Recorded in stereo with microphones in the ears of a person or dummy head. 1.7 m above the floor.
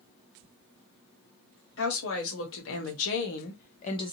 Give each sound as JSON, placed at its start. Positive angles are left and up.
{"t": 1.8, "sound": "a woman speaking", "side_deg": 75, "distance_m": 1.4}